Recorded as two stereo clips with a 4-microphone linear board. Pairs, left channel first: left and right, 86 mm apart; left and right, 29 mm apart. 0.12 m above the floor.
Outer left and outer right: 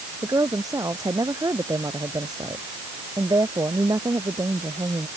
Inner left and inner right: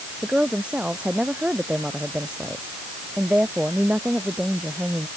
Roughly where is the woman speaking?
Right.